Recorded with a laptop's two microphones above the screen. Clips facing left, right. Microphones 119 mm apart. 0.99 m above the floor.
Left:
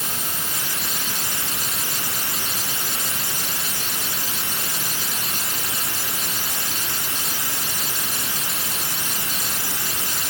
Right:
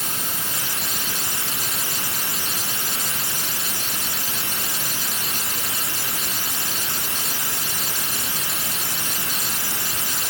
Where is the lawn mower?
No lawn mower in this recording.